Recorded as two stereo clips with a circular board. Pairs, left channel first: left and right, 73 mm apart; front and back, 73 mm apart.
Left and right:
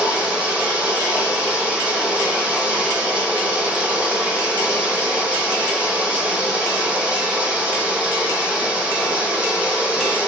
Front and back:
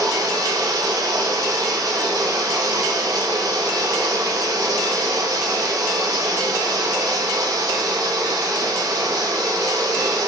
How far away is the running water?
About 1.3 m.